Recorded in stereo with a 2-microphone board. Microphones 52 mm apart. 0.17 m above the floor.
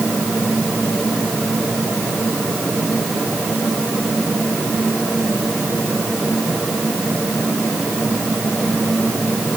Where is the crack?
No crack in this recording.